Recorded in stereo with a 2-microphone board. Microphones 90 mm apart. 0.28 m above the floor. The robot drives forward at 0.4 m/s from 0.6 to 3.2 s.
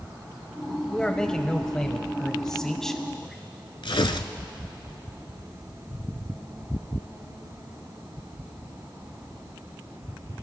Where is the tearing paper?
80° left, 0.7 m.